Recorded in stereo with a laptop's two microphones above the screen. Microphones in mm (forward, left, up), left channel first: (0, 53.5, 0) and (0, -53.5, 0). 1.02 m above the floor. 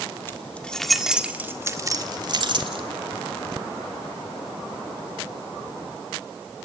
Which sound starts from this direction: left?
Keys jangling, at 0.3 s.